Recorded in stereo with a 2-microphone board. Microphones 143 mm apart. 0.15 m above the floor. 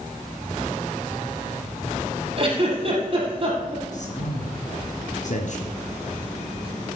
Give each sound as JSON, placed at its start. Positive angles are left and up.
{"t": 2.4, "sound": "a giggle", "side_deg": -40, "distance_m": 5.5}
{"t": 3.9, "sound": "a man speaking", "side_deg": 60, "distance_m": 3.5}